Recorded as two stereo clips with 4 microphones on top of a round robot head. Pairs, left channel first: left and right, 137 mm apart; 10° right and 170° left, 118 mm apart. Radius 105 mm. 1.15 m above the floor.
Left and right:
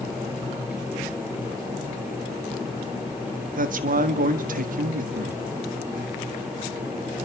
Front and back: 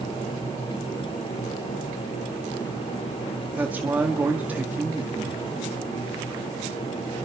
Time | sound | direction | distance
3.6 | a man speaking | 115° right | 1.7 m